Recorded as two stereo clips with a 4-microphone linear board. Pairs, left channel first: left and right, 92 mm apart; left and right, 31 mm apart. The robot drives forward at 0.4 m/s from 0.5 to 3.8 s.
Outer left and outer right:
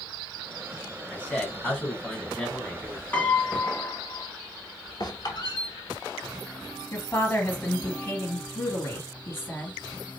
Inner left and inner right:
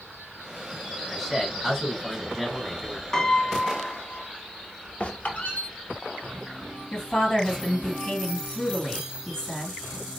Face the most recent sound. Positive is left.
turn(degrees=25)  # may be behind; listen again after turning